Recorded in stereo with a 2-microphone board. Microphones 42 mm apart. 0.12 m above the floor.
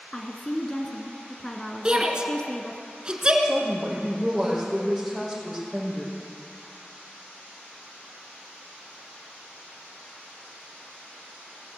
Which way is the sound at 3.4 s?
5° right (ahead or behind).